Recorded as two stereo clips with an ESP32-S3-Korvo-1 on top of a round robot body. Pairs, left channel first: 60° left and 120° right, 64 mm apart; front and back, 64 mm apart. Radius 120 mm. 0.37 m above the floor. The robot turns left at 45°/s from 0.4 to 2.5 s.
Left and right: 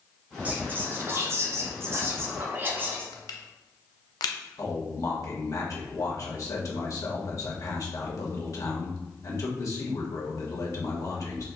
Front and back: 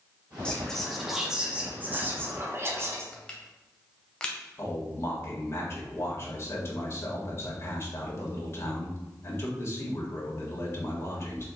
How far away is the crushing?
About 0.5 m.